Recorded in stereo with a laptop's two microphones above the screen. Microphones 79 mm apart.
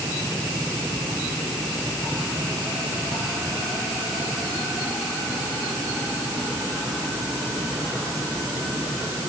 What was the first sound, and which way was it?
Only background noise.